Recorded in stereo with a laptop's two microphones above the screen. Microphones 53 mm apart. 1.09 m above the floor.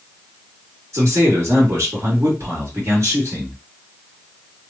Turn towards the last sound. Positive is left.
turn(degrees=-75)  # may be behind; listen again after turning